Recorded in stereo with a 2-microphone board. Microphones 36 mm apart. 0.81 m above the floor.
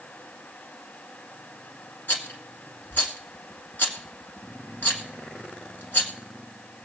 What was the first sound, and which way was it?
A rattle, 65° left (ahead or behind).